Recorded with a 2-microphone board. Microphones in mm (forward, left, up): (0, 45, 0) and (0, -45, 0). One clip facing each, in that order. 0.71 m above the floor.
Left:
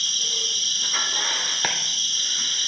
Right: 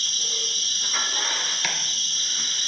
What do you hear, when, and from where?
0.0 s an insect: 55° left (ahead or behind), 2.0 m
1.6 s chopping: 45° left (ahead or behind), 0.9 m